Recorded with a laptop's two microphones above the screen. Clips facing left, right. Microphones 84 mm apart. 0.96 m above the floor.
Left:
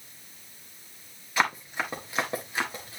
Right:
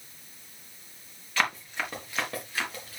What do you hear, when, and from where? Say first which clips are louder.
1.4 s running footsteps: left 2 dB; 15° left (ahead or behind), 5 m; by 3.0 s 25° left (ahead or behind), 4 m